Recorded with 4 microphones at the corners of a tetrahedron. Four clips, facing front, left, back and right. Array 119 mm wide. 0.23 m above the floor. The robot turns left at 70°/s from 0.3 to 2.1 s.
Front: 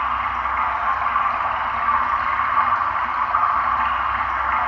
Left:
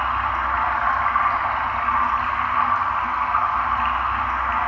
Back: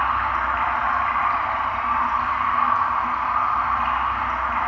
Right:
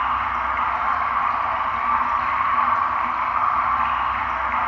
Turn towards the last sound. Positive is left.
turn(degrees=15)